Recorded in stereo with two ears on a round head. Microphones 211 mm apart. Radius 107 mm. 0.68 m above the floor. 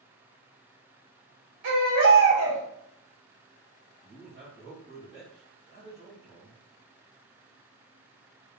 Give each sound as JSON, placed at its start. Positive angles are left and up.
{"t": 1.6, "sound": "a baby crying", "side_deg": -80, "distance_m": 1.4}
{"t": 4.0, "sound": "a man speaking", "side_deg": -45, "distance_m": 1.7}